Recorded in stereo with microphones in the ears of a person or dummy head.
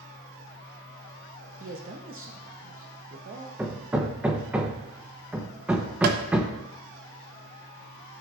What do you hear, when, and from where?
1.6 s a man speaking: 45° right (ahead or behind), 0.9 m
3.6 s hammering: 10° right (ahead or behind), 0.9 m
6.0 s tapping: 55° right (ahead or behind), 1.0 m